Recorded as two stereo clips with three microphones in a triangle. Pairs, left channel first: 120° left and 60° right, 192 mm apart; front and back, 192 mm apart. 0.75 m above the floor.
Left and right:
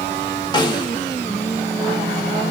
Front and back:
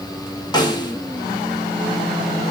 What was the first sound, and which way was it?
A snare drum, 60° left.